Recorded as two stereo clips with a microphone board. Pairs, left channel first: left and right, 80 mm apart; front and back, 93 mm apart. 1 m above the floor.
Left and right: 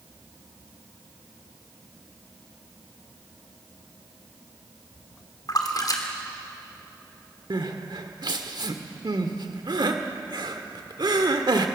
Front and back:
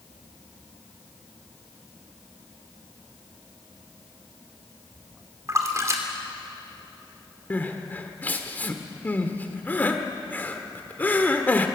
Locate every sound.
5.5 s a splash: 125° left, 2.5 m
7.5 s crying: 70° right, 1.5 m